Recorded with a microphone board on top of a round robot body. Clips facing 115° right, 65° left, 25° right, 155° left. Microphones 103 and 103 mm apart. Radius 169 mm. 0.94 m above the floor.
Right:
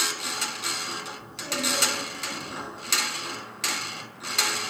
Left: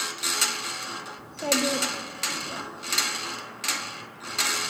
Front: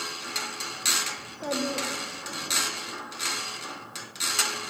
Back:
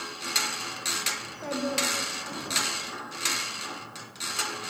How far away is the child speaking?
About 1.7 m.